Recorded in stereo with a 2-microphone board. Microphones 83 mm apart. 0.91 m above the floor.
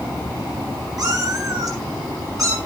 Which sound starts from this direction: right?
A cat meowing, at 1.0 s.